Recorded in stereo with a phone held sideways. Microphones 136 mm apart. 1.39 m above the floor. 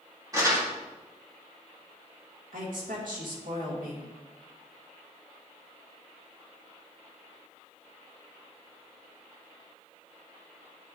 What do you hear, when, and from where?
0.3 s crumpling: 25° right (ahead or behind), 2.5 m
2.5 s a woman speaking: 85° right, 1.9 m